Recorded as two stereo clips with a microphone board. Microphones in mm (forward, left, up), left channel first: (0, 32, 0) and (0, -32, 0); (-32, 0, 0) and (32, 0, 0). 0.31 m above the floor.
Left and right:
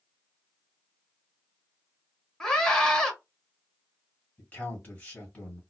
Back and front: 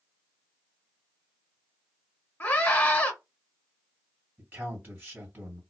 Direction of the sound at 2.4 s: 155° left.